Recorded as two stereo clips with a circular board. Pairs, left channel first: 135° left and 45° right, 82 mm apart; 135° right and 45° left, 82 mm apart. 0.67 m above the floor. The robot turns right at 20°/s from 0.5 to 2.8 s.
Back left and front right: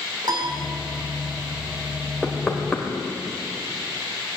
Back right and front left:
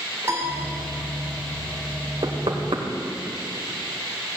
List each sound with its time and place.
0.2 s a piano: 10° right, 2.5 m
2.2 s knocking: 45° left, 1.9 m; by 2.9 s 55° left, 1.9 m